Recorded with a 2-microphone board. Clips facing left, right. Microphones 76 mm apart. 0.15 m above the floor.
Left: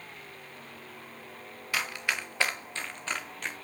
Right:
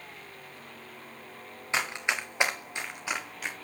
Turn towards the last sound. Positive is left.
turn(degrees=-5)  # may be behind; listen again after turning